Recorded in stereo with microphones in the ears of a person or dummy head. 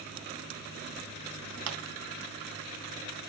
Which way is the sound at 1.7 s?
65° right (ahead or behind).